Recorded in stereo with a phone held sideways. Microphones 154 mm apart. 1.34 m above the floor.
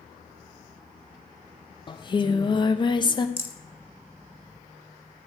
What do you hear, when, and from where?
1.9 s singing: 30° left (ahead or behind), 0.6 m
3.4 s a rattle: 15° right (ahead or behind), 0.8 m